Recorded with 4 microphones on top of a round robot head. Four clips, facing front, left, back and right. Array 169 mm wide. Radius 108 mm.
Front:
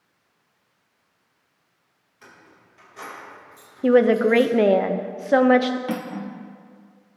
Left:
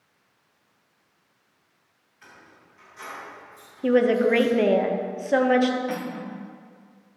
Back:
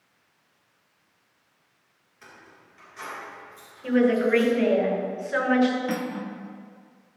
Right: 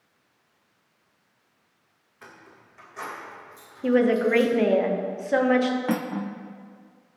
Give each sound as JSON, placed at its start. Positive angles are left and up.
{"t": 2.2, "sound": "keys jangling", "azimuth_deg": -75, "distance_m": 4.0}
{"t": 3.8, "sound": "a woman speaking", "azimuth_deg": 10, "distance_m": 1.0}
{"t": 5.9, "sound": "cutlery clinking", "azimuth_deg": -70, "distance_m": 0.8}